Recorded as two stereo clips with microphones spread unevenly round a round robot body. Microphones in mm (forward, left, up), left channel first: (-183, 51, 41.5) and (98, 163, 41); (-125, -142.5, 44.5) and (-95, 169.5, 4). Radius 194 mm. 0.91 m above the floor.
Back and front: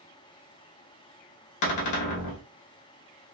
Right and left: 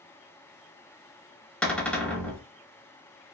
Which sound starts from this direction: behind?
A cupboard door, at 1.6 s.